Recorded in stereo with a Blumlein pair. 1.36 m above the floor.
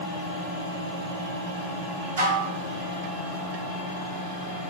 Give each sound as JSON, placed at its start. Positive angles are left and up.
{"t": 2.2, "sound": "dishes clattering", "azimuth_deg": -60, "distance_m": 1.0}